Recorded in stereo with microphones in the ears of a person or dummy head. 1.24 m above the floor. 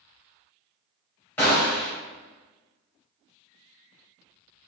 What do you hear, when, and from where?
1.4 s a gunshot: 15° left (ahead or behind), 1.2 m